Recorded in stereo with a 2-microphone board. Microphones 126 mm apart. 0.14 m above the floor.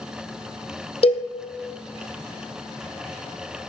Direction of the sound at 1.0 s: 45° left (ahead or behind).